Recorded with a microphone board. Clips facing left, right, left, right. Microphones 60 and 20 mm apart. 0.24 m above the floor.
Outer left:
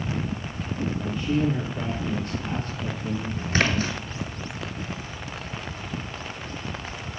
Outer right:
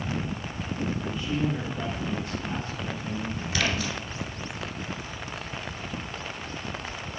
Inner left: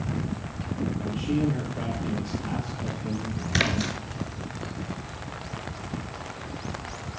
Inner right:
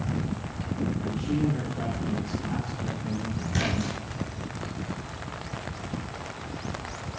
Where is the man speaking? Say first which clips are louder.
Outer left 7 dB, inner left 3 dB; 55° left (ahead or behind), 6 m.